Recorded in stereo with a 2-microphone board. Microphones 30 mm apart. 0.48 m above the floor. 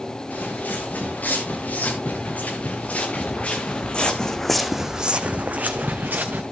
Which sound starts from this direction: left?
Footsteps, at 0.3 s.